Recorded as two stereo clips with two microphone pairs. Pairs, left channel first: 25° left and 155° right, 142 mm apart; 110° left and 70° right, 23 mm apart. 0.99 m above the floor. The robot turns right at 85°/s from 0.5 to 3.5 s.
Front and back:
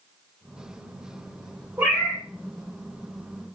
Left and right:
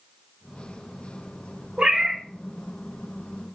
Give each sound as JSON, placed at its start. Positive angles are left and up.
{"t": 1.8, "sound": "a cat meowing", "azimuth_deg": -80, "distance_m": 1.8}